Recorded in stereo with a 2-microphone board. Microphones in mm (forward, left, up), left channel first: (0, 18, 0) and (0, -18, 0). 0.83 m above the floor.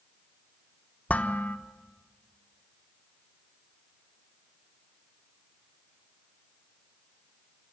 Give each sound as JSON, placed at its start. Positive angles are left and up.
{"t": 1.1, "sound": "dishes clattering", "side_deg": 40, "distance_m": 1.2}